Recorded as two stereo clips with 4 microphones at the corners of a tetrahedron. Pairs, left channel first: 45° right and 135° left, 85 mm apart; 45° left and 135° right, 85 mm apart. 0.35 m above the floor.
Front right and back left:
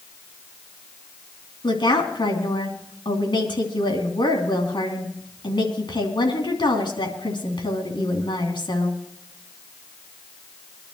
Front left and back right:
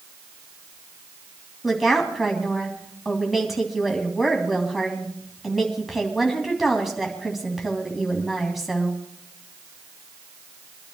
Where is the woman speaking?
50° right, 3 m.